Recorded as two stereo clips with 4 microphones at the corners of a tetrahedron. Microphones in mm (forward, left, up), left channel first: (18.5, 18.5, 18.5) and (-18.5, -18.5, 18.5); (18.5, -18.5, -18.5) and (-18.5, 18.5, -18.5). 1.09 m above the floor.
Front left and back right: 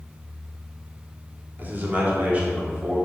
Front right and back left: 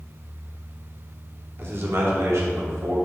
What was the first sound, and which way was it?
A man speaking, 175° left.